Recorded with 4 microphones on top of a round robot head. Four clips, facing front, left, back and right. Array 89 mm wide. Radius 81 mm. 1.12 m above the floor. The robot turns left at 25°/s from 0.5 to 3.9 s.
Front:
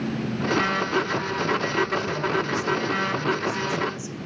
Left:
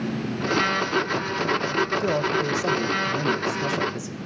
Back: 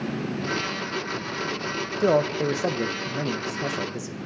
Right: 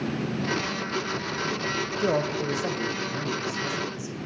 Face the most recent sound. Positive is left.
turn(degrees=140)